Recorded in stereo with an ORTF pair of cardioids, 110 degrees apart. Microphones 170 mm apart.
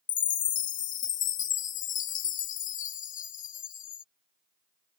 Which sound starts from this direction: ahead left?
A chime, at 0.1 s.